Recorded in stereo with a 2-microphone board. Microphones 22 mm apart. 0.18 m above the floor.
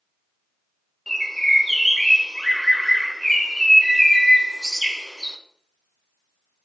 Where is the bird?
10° left (ahead or behind), 0.6 m.